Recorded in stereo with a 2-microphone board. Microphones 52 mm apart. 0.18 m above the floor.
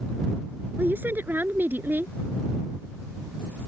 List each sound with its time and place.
0.8 s a woman speaking: 40° right (ahead or behind)